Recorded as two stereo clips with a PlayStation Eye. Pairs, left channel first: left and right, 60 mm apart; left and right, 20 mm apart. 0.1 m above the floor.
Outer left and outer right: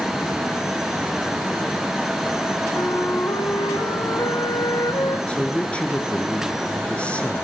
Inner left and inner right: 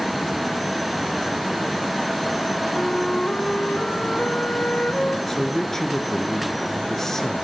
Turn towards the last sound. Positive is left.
turn(degrees=20)  # may be behind; listen again after turning